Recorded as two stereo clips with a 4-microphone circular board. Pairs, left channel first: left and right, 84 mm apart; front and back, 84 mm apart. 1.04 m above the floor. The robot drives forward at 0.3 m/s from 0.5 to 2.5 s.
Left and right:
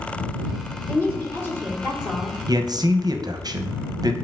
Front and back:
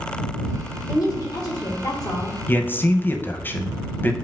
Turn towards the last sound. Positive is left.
turn(degrees=-60)